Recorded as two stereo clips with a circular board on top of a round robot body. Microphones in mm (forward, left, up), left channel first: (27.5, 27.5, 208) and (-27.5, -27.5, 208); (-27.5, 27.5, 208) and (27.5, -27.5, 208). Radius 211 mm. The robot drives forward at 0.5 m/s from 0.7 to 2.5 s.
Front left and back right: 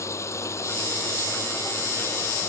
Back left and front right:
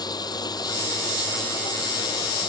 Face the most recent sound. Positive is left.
turn(degrees=105)